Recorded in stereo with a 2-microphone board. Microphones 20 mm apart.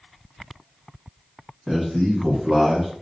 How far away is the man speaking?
About 1.3 m.